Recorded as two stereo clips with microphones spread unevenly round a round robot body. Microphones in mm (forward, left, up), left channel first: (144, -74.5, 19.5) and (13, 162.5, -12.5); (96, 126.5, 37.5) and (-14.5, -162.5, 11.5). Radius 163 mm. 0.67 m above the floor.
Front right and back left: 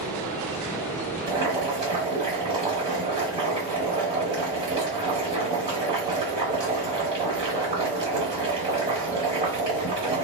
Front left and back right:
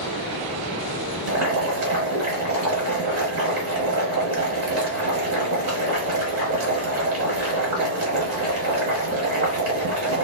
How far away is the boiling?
About 1.0 m.